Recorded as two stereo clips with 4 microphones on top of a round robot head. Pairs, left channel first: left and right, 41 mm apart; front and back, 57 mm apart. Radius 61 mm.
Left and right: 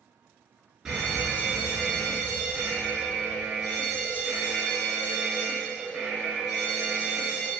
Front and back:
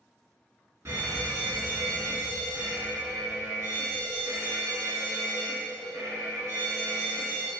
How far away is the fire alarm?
About 2.0 m.